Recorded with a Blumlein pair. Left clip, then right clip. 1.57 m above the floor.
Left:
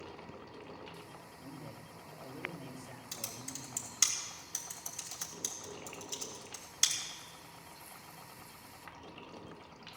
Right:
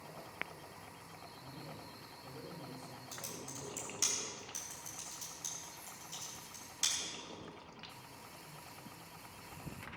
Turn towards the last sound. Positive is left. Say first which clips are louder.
# left 3 dB
turn(degrees=70)